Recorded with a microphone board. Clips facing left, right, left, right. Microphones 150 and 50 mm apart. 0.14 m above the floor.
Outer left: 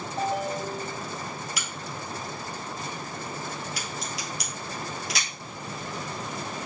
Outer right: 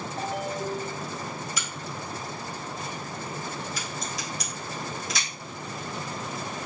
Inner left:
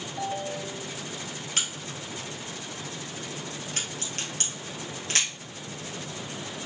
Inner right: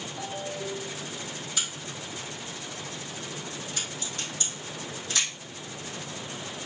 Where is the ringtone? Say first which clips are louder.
Outer left 3 dB, inner left 4 dB; 25° left (ahead or behind), 1.5 m.